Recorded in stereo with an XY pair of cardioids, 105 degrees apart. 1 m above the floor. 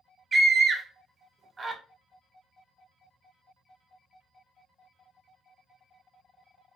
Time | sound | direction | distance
0.3 | a scream | 30° right | 0.8 m